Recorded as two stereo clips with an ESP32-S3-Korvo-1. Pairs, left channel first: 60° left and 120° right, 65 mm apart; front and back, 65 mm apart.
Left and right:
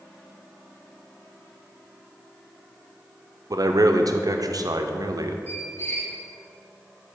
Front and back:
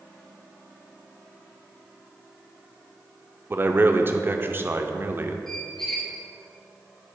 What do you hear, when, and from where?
3.5 s a man speaking: 125° right, 0.5 m
5.5 s a squeak: 75° left, 1.6 m